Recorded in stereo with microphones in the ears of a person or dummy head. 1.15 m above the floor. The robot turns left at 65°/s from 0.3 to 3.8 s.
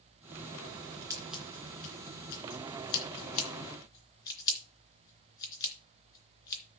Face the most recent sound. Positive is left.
turn(degrees=20)  # may be behind; listen again after turning